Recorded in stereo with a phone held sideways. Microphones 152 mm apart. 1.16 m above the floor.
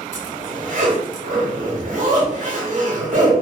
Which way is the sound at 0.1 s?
55° right (ahead or behind).